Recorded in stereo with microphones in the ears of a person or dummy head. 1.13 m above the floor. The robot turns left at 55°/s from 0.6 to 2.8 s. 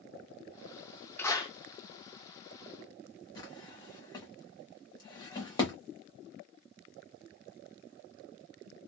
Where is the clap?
15° left (ahead or behind), 0.7 m; by 1.5 s 35° left (ahead or behind), 0.7 m.